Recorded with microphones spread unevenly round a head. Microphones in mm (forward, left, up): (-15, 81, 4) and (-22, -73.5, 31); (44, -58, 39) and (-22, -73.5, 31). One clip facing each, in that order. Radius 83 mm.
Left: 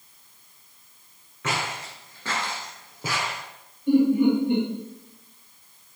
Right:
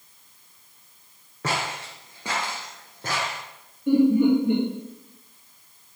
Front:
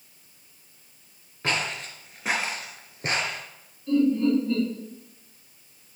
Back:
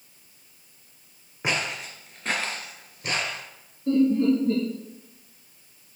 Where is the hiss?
I don't hear a hiss.